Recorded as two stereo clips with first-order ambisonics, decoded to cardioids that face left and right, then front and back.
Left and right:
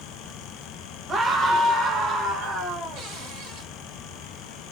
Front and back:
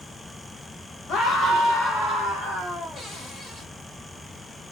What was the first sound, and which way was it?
A scream, 40° right.